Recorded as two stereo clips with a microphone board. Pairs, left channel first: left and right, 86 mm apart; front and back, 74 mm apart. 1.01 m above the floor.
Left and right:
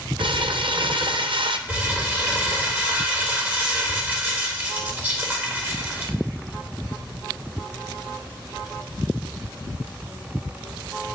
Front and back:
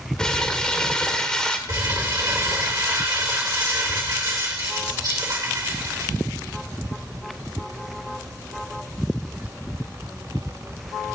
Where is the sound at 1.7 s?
155° right, 1.9 m.